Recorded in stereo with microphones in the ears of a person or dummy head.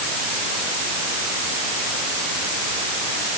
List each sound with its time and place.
Only background noise.